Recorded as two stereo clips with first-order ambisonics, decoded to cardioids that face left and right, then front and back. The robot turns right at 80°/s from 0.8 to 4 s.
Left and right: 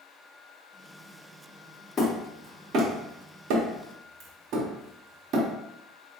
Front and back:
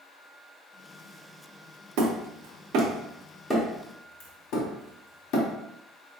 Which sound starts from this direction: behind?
Hammering, at 2.0 s.